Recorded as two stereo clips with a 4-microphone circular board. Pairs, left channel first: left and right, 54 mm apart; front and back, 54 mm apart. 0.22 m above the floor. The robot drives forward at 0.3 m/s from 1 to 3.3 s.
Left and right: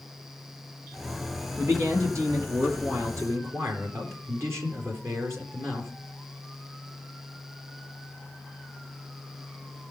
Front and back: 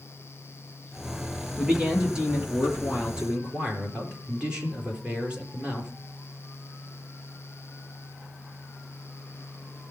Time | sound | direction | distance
1.6 | a man speaking | 105° right | 4 m